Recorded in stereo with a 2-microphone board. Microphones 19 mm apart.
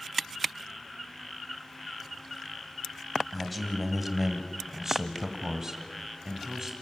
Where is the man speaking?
5° right (ahead or behind), 1.9 m; by 6.7 s 30° right (ahead or behind), 2.5 m.